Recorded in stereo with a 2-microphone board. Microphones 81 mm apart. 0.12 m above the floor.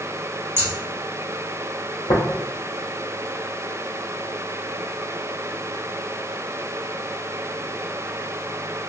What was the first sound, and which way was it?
Scissors, 30° right (ahead or behind).